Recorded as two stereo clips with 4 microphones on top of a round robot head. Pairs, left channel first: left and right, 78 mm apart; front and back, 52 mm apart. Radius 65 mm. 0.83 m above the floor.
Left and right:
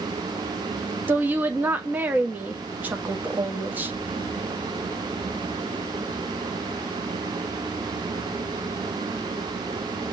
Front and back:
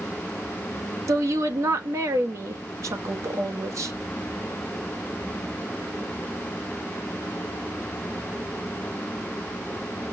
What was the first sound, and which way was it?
A woman speaking, 160° right.